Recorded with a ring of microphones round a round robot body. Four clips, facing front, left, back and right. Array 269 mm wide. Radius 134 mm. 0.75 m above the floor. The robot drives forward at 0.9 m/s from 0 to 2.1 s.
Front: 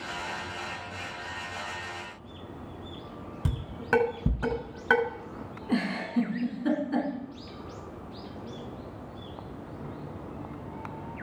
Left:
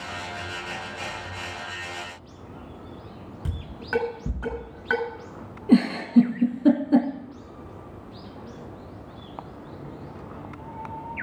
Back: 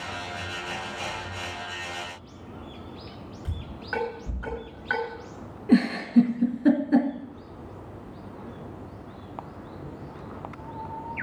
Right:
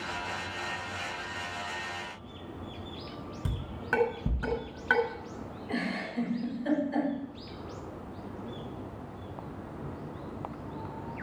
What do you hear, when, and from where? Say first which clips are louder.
3.5 s dishes clattering: even, front 8 dB; straight ahead, 6 m
5.7 s a giggle: left 16 dB, back 9 dB; 115° left, 3 m